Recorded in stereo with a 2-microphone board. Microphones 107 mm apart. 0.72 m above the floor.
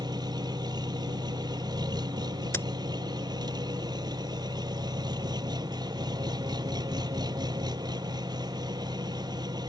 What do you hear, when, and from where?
0.0 s an engine running: 40° right (ahead or behind)
2.5 s a crack: 25° left (ahead or behind)